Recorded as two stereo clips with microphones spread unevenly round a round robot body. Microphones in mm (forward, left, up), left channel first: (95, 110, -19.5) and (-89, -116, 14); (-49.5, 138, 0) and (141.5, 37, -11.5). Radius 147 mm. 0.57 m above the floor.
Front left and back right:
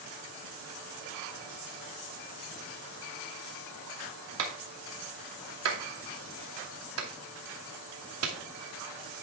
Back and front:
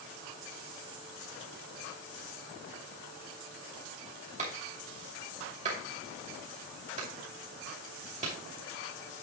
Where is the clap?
90° right, 2.5 m.